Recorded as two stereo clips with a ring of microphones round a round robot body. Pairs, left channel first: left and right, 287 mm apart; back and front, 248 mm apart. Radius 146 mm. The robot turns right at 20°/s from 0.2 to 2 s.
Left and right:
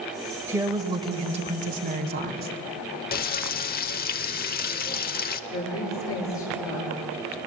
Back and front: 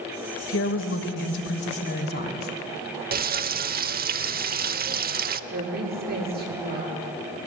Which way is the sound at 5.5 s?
50° left.